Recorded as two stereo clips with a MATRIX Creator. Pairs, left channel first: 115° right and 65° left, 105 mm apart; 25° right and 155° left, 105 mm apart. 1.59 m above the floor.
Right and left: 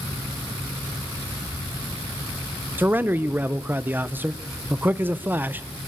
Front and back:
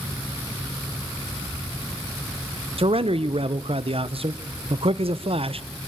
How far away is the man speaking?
About 0.9 m.